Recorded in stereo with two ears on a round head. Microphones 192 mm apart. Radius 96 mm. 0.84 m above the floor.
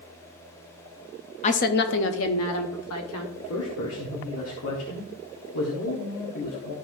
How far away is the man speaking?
About 1.6 m.